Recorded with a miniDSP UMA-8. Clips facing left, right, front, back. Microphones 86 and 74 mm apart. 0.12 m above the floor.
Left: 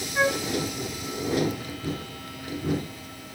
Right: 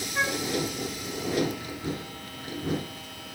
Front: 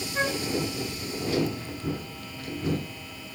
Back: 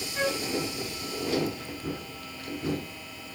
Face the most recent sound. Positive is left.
turn(degrees=15)